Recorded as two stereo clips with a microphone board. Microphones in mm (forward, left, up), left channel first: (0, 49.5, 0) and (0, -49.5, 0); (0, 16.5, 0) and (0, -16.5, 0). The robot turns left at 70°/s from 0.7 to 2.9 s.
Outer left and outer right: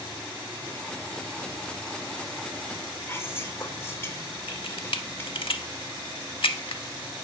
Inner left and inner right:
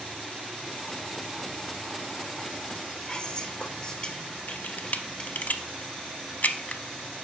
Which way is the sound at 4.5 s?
65° left (ahead or behind).